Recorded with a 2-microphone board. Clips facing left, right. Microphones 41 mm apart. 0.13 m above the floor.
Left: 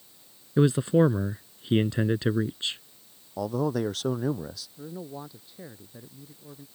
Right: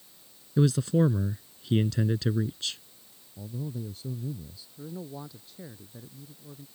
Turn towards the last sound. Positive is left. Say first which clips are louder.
# even
turn(degrees=10)  # may be behind; listen again after turning